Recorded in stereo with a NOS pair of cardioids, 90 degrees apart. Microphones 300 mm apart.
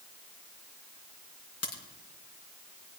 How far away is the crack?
About 3.5 m.